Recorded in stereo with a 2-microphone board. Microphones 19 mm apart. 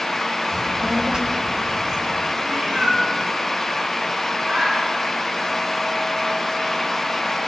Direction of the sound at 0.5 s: 30° right (ahead or behind).